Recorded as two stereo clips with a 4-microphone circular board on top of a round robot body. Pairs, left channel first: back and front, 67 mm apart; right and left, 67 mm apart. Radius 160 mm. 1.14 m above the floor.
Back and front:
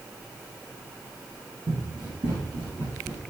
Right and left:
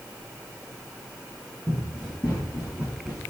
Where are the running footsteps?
15° right, 3 m; by 3.2 s 10° left, 4 m.